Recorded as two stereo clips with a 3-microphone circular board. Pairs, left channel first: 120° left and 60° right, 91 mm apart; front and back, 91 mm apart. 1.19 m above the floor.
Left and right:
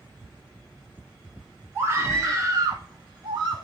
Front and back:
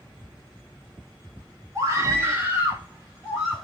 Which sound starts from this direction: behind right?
A scream, at 1.8 s.